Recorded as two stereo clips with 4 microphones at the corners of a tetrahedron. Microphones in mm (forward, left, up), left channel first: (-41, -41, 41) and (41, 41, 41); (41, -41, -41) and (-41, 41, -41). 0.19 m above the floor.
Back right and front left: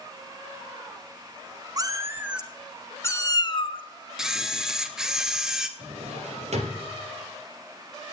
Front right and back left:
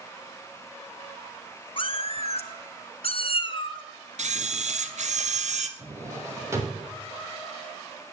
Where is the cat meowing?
10° right, 0.8 m; by 3.8 s 95° right, 1.0 m.